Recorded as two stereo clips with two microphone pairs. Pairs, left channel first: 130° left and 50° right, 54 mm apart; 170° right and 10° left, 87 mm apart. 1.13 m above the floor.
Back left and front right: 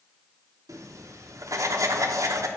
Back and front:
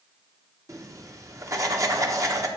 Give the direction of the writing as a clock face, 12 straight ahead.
1 o'clock.